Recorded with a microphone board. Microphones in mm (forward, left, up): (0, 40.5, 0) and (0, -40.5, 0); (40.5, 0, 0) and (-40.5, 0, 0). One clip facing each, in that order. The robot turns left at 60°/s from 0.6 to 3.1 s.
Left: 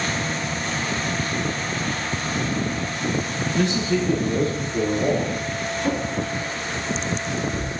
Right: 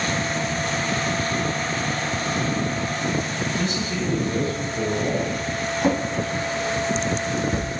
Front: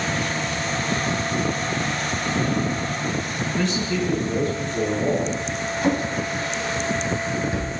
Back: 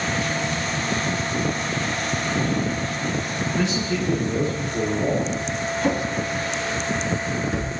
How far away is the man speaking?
About 2.5 m.